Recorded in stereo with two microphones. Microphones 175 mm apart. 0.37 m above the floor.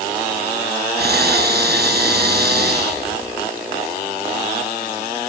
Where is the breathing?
65° right (ahead or behind), 6 m.